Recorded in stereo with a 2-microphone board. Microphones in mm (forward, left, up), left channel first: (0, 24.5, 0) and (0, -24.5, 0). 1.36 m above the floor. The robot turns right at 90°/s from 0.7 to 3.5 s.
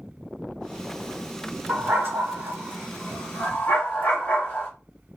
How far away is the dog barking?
About 1.9 m.